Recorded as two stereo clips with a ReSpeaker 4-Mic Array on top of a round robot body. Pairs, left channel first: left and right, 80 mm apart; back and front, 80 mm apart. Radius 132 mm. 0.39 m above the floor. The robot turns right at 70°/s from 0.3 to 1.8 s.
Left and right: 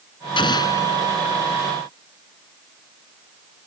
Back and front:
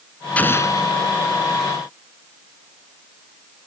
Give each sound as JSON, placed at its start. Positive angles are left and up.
{"t": 0.4, "sound": "an explosion", "azimuth_deg": 110}